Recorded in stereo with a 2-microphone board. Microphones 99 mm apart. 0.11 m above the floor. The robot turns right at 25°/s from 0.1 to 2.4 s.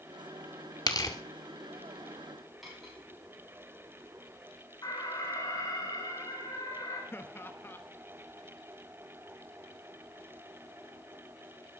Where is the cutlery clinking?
Centre (ahead or behind), 7 m.